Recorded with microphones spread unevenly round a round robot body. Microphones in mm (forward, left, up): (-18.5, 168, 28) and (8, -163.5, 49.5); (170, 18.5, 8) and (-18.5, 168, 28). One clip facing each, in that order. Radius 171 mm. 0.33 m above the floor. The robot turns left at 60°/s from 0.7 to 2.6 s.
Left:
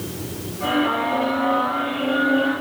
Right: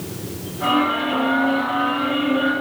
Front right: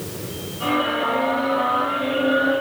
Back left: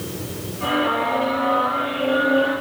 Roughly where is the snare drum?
I don't hear a snare drum.